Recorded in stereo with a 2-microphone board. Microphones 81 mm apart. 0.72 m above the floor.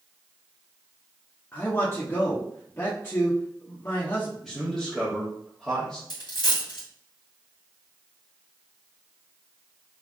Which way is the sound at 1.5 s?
30° left (ahead or behind).